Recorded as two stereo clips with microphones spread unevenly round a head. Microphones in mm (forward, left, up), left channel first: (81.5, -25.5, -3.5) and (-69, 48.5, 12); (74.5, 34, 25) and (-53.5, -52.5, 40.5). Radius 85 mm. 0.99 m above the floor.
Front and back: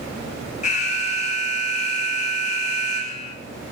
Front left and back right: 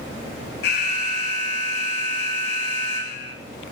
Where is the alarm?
20° left, 9 m.